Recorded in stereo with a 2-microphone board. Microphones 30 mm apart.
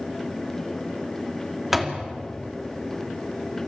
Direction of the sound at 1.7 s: 10° right (ahead or behind).